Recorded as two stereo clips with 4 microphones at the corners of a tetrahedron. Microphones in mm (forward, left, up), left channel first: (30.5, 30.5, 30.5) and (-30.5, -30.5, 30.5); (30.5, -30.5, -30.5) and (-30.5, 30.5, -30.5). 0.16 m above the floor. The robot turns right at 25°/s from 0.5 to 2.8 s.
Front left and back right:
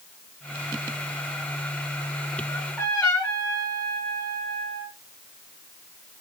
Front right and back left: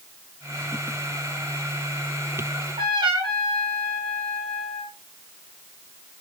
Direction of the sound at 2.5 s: 115° left.